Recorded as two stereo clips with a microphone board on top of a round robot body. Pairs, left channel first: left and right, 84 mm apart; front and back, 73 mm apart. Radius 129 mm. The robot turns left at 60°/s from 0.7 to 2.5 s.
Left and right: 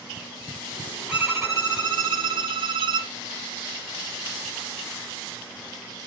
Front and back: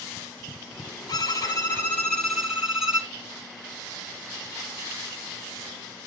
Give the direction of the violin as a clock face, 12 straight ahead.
12 o'clock.